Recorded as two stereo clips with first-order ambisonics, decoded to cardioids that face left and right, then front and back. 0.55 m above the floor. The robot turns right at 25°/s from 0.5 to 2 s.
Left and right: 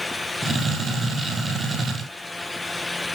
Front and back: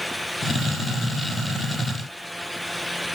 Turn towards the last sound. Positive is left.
No sound to turn to.